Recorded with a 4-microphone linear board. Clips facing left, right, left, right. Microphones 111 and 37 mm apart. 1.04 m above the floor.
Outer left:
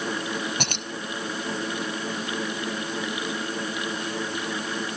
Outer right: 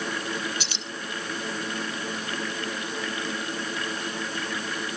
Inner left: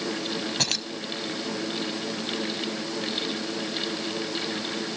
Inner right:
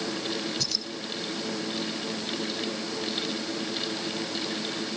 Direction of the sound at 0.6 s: 60° left (ahead or behind).